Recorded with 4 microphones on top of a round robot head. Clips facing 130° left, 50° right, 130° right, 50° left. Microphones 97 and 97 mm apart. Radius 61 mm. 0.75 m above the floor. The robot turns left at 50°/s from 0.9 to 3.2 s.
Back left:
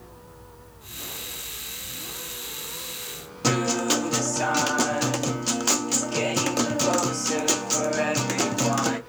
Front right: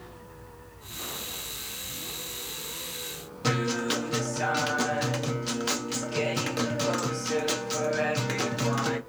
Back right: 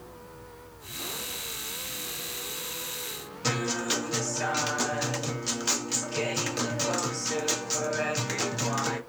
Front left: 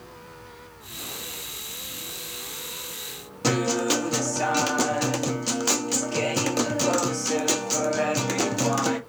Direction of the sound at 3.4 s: 85° left.